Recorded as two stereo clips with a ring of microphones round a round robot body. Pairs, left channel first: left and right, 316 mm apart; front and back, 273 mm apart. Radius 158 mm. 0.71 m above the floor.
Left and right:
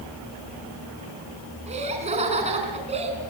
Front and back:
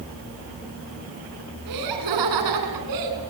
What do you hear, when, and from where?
1.7 s laughter: 160° right, 8 m